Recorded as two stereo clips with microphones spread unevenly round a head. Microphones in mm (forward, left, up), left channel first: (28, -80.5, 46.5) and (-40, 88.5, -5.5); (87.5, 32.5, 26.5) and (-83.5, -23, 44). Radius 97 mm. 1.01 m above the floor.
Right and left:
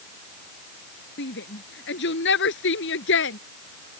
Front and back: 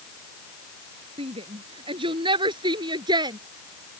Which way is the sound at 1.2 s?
100° right.